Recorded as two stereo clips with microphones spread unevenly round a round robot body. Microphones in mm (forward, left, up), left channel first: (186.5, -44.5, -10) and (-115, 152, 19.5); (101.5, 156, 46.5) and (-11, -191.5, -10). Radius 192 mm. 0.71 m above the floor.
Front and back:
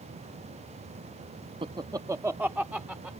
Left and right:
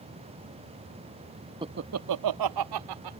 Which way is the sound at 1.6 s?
145° right.